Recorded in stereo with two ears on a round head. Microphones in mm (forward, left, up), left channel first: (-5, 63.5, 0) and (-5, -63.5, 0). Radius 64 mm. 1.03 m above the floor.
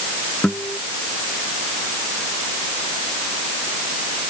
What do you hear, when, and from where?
0.4 s a guitar: 10° left (ahead or behind)